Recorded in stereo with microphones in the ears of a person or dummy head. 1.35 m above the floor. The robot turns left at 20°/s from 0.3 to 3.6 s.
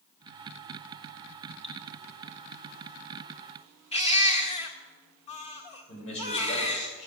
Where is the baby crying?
30° left (ahead or behind), 1.7 m.